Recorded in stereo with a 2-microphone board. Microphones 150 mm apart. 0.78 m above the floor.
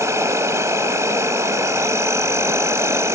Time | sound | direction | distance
0.0 | an insect | 20° right (ahead or behind) | ?